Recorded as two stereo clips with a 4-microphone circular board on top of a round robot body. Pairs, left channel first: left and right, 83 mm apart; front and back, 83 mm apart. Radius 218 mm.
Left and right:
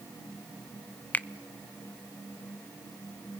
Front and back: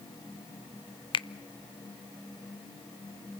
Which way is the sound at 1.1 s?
20° left.